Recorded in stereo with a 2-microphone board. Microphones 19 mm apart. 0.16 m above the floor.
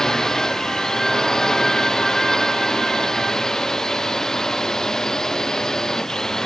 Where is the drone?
30° left (ahead or behind).